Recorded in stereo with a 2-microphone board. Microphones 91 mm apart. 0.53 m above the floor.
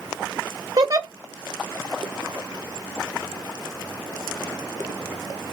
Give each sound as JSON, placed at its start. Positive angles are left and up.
{"t": 0.8, "sound": "a giggle", "side_deg": -45, "distance_m": 0.8}